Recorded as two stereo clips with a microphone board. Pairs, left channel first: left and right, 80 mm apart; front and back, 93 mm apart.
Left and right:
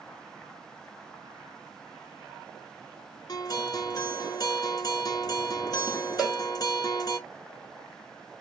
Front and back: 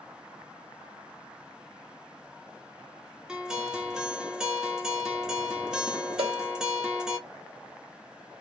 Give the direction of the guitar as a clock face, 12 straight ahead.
9 o'clock.